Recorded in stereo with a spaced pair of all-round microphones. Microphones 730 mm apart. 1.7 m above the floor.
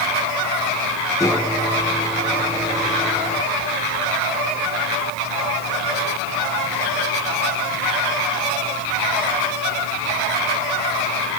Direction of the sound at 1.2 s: 5° left (ahead or behind).